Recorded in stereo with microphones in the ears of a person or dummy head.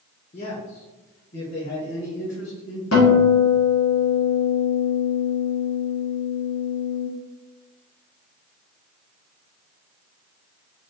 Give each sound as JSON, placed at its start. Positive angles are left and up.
{"t": 0.3, "sound": "a man speaking", "side_deg": 35, "distance_m": 0.9}
{"t": 2.9, "sound": "a guitar", "side_deg": 80, "distance_m": 2.0}